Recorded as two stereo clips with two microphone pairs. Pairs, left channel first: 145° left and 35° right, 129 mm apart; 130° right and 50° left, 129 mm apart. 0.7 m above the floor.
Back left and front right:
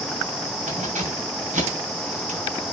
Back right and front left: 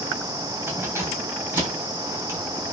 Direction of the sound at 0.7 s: 20° right.